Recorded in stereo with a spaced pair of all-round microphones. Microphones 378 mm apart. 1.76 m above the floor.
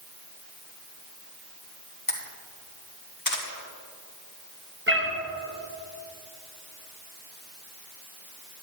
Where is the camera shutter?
60° left (ahead or behind), 1.5 m.